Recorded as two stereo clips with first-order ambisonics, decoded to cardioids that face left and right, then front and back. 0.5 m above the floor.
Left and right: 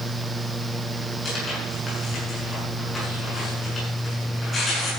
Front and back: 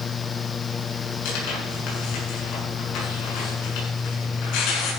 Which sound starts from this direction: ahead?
Tearing paper, at 1.2 s.